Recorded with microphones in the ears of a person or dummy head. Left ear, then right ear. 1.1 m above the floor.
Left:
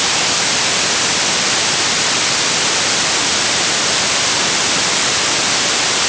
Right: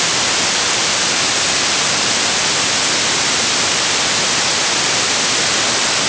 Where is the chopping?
No chopping in this recording.